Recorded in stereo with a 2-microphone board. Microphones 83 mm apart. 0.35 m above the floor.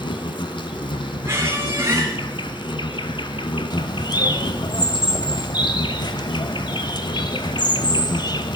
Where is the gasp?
I don't hear a gasp.